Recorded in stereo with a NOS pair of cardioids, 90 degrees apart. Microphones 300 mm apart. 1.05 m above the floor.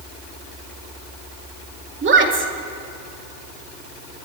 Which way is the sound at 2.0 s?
40° right.